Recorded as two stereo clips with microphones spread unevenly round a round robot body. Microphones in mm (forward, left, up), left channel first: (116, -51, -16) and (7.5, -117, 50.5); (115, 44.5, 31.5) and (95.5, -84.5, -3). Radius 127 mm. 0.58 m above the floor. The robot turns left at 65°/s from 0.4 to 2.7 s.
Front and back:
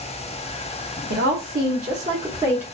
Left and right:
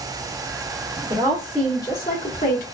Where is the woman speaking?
150° right, 1.0 m; by 2.6 s 110° left, 1.0 m.